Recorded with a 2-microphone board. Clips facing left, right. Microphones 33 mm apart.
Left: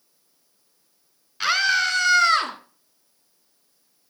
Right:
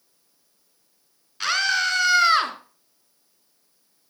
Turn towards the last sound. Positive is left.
turn(degrees=-15)  # may be behind; listen again after turning